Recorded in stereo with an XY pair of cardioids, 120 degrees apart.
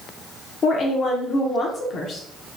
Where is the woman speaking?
50° left, 1.0 m.